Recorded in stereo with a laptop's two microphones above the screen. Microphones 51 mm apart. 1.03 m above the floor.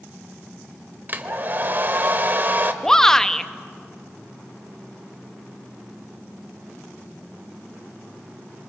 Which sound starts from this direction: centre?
A shout, at 2.8 s.